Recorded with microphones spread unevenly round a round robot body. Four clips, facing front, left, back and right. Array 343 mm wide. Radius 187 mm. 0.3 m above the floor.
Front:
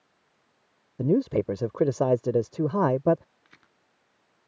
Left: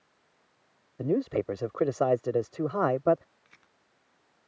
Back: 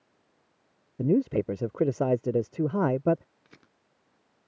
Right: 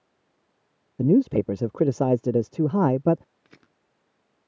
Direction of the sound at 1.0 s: 80° right.